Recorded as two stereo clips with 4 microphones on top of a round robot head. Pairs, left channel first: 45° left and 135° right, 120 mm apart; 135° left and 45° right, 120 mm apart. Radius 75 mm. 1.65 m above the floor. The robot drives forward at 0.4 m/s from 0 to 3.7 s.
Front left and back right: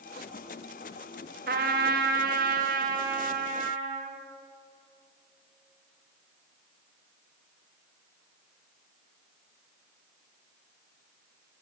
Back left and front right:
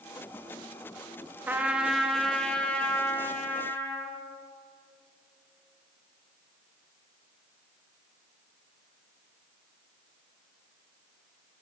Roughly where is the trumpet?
Behind right.